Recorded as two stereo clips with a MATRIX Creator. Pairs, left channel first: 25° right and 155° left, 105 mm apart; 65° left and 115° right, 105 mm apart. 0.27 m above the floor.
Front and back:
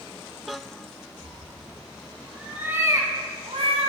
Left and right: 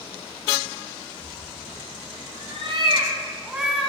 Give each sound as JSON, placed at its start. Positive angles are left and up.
{"t": 1.2, "sound": "a cat meowing", "azimuth_deg": -105, "distance_m": 2.0}